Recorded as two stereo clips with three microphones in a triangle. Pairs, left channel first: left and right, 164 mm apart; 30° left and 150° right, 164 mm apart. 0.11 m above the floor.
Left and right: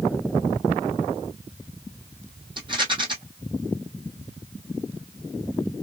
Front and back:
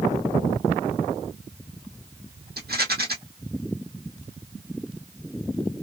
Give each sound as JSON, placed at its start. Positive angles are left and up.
{"t": 2.6, "sound": "a rattle", "azimuth_deg": -150, "distance_m": 1.0}